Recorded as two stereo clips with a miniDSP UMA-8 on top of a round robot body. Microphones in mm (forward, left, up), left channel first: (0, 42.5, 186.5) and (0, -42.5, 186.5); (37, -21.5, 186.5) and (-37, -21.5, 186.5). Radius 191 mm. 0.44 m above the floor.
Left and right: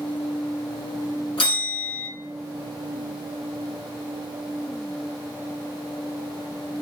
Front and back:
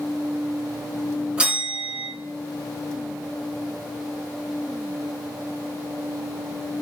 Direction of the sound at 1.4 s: 105° left.